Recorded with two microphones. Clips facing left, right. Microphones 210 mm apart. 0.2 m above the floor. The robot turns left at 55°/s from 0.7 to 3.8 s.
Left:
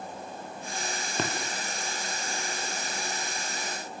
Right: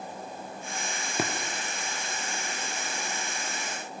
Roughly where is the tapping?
Centre.